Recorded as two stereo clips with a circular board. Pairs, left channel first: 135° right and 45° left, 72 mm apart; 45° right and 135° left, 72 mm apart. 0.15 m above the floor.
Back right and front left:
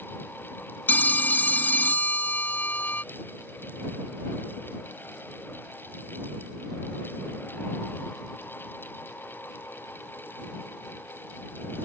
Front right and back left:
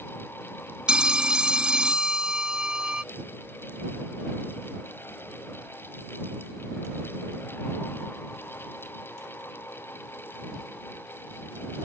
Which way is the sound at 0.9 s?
160° right.